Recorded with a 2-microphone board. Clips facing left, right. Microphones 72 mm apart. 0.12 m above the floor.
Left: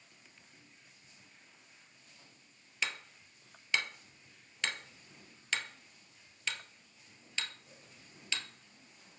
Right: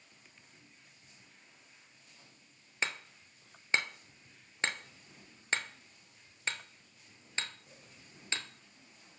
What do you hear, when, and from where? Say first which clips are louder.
2.8 s hammering: right 2 dB; 35° right (ahead or behind), 0.7 m